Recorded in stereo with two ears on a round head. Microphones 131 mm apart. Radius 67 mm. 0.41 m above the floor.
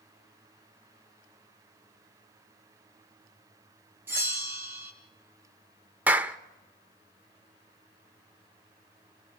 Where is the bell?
15° right (ahead or behind), 2.5 m.